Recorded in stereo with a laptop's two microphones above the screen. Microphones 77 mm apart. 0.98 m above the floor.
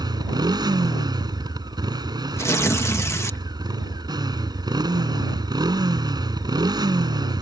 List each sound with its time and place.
0.0 s a motorcycle: 65° right (ahead or behind)
2.4 s tearing paper: 40° left (ahead or behind)